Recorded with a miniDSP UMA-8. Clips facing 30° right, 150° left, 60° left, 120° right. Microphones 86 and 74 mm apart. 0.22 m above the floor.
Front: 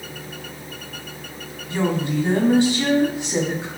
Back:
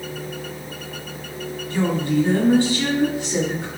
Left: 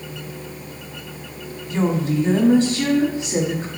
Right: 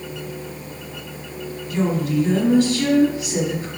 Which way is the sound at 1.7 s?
25° left.